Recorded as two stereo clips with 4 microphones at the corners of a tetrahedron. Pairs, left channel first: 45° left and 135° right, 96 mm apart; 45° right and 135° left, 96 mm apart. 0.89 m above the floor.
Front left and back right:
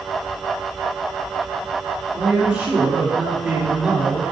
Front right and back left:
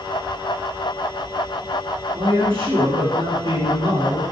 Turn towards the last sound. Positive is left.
turn(degrees=145)